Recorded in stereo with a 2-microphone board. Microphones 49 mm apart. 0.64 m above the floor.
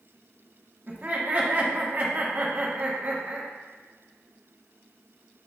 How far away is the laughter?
About 0.9 m.